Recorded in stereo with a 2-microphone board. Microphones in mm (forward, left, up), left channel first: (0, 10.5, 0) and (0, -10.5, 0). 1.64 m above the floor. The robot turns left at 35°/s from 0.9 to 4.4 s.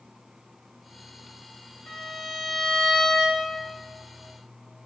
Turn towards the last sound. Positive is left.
turn(degrees=-20)